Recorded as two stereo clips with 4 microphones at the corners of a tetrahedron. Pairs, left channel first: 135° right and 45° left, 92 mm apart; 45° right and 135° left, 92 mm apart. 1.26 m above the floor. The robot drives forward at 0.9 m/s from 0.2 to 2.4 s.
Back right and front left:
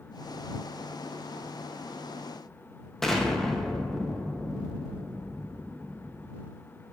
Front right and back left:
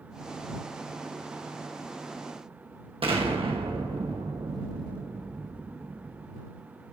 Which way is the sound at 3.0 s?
140° left.